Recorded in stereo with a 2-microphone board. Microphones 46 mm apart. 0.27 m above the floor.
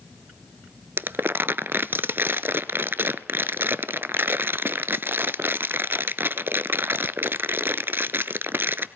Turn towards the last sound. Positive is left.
turn(degrees=-55)  # may be behind; listen again after turning